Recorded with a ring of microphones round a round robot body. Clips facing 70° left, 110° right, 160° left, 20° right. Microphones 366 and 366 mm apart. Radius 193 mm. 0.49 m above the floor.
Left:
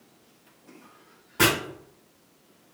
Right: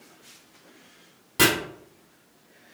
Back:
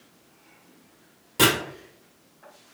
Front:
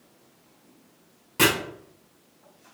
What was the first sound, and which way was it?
Chopping, 120° right.